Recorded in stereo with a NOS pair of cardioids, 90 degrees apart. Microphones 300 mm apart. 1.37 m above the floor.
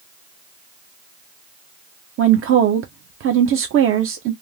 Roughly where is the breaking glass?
I don't hear breaking glass.